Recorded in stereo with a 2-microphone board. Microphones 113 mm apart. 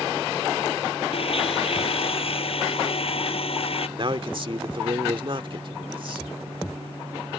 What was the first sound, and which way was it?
A blender, 55° left (ahead or behind).